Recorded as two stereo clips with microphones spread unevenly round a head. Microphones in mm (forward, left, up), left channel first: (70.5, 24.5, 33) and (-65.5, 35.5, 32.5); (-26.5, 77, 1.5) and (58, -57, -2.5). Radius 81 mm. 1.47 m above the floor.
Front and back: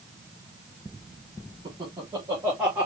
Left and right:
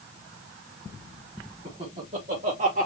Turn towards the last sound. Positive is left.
turn(degrees=-105)